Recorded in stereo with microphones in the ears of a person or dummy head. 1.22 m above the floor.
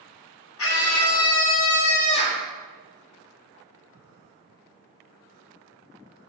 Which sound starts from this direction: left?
A scream, at 0.6 s.